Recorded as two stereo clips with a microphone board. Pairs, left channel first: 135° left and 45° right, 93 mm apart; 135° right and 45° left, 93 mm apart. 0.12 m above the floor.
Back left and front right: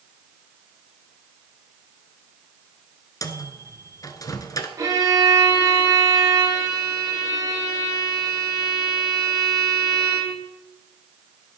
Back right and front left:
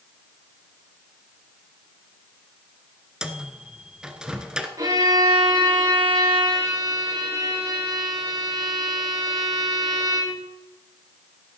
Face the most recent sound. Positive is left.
turn(degrees=5)